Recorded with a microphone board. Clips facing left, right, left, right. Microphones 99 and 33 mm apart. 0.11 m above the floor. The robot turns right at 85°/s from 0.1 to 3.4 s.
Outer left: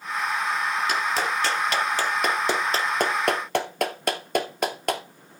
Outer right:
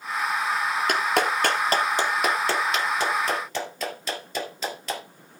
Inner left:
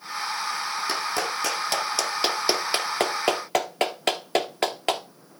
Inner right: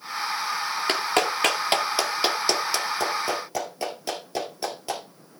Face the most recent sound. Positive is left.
turn(degrees=60)  # may be behind; listen again after turning